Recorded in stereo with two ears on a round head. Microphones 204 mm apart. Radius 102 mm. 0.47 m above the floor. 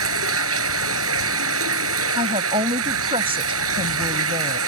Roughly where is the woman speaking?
Right.